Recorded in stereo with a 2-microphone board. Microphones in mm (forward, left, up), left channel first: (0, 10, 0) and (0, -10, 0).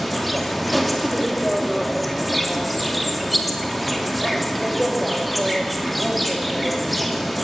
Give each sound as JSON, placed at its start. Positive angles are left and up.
{"t": 0.0, "sound": "an insect", "side_deg": 0, "distance_m": 2.5}